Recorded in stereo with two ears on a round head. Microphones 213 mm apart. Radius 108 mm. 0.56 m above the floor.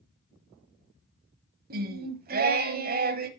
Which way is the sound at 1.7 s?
40° right (ahead or behind).